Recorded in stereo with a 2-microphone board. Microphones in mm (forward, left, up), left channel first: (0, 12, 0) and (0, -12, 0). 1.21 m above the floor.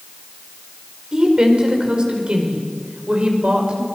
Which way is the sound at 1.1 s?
40° right (ahead or behind).